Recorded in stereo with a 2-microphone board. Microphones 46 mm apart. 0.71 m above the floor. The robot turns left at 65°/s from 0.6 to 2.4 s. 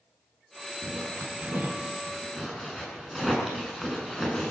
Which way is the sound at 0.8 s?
80° right.